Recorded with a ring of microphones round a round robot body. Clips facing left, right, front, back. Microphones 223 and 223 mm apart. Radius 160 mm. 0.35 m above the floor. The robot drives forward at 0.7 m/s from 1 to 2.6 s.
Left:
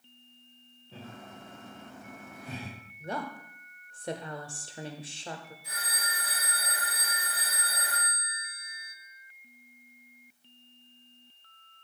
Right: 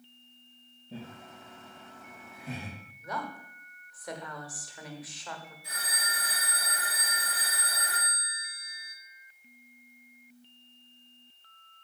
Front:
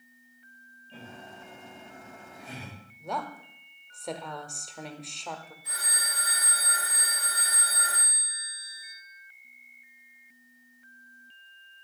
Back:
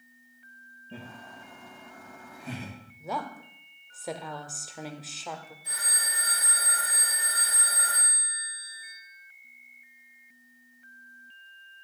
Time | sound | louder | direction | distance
0.9 | laughter | right 2 dB, back 2 dB | 145° right | 2 m
3.0 | a woman speaking | left 3 dB, even | 95° left | 0.9 m
5.6 | a phone ringing | even, even | 110° right | 5 m